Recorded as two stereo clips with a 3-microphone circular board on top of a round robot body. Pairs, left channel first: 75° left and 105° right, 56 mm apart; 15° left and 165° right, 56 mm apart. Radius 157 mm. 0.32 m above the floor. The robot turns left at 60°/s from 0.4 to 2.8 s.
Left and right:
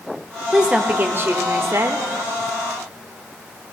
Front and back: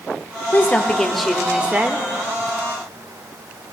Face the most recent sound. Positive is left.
turn(degrees=-170)